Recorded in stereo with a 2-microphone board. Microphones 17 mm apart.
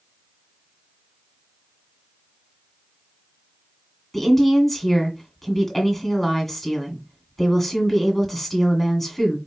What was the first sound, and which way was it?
A woman speaking, 10° left (ahead or behind).